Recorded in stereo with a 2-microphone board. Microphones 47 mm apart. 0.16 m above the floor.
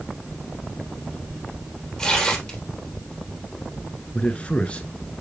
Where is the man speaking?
25° left (ahead or behind), 1.6 m.